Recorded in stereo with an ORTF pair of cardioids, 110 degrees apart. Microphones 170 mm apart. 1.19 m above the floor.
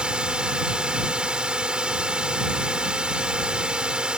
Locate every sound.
0.0 s a drone: 5° right